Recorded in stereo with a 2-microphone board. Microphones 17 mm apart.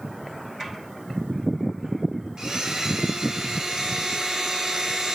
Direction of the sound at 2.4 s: 35° right (ahead or behind).